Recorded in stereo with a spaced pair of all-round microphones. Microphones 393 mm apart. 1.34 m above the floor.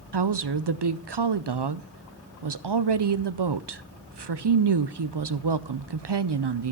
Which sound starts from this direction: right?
A woman speaking, at 0.1 s.